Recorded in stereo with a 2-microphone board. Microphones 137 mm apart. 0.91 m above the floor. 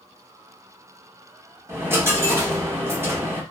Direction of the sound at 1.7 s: 20° right (ahead or behind).